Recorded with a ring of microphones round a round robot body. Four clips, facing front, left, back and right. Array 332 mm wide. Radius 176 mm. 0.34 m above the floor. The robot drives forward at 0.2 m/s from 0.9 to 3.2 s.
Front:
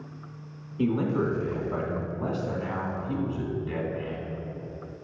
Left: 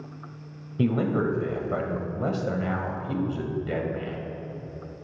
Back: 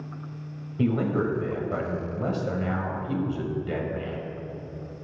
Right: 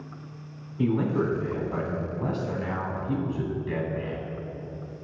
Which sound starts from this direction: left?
A man speaking, at 0.8 s.